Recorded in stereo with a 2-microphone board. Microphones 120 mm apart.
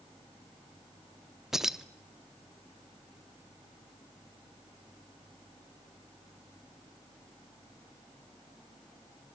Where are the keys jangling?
5° right (ahead or behind), 0.6 m.